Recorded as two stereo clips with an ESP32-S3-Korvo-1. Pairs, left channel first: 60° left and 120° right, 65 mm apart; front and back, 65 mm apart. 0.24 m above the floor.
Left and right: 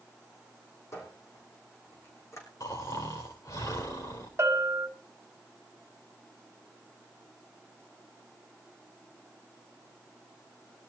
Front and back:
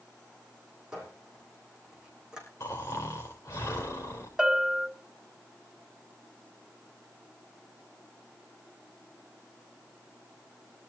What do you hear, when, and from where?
0.9 s a squeak: 100° left, 6 m
2.6 s snoring: 45° left, 4.5 m
4.4 s a bell: 100° right, 2 m